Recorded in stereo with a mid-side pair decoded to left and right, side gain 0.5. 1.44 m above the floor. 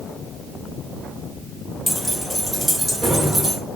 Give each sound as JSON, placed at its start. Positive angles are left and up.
{"t": 1.9, "sound": "keys jangling", "azimuth_deg": 15, "distance_m": 2.5}